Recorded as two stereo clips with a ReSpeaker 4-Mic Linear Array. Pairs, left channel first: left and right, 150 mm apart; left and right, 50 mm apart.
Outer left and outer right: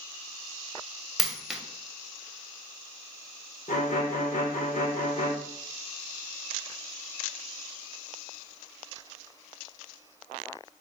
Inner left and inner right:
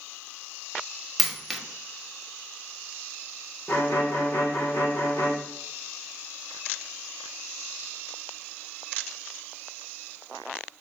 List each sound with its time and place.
1.2 s a dropped coin: 5° right (ahead or behind), 0.6 m
3.7 s a violin: 60° left (ahead or behind), 0.7 m